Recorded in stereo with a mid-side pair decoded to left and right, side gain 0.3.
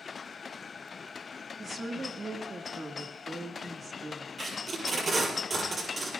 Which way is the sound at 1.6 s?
45° right.